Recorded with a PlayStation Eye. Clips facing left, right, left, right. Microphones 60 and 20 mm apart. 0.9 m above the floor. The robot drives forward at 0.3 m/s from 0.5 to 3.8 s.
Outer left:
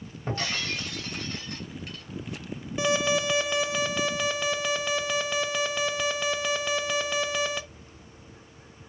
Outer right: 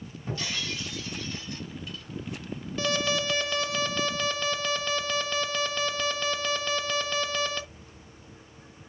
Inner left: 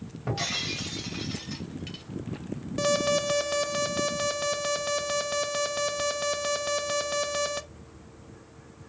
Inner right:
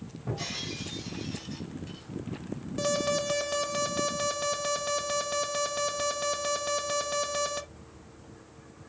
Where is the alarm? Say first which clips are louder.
Outer left 3 dB, inner left 3 dB; 15° left (ahead or behind), 0.6 m.